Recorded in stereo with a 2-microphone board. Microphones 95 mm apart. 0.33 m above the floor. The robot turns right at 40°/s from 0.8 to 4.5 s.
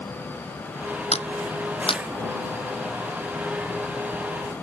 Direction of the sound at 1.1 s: 85° left.